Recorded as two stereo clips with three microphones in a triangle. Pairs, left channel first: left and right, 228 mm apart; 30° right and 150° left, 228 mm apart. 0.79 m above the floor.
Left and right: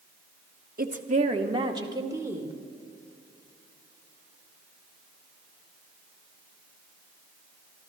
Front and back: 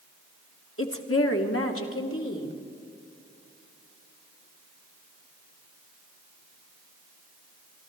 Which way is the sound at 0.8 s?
45° right.